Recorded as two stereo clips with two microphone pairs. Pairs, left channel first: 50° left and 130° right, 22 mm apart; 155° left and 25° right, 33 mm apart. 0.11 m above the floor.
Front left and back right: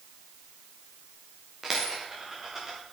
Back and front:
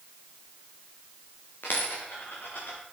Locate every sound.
1.6 s a dropped coin: 155° left, 5.5 m